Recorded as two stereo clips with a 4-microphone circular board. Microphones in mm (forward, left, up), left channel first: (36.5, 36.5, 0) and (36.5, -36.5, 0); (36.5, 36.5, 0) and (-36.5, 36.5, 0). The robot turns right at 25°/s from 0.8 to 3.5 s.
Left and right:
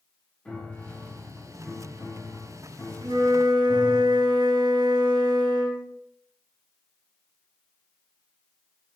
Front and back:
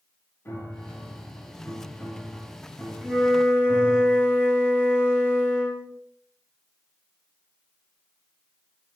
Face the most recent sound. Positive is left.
turn(degrees=-70)